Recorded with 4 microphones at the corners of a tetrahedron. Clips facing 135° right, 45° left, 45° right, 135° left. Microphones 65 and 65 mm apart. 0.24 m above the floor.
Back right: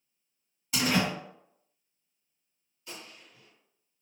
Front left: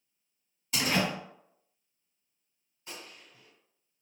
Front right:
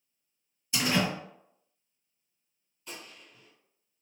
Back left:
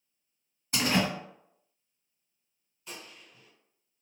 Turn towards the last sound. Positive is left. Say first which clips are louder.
# even, even
turn(degrees=55)